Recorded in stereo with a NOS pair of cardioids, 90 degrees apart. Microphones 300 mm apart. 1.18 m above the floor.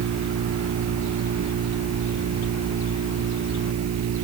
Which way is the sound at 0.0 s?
55° right.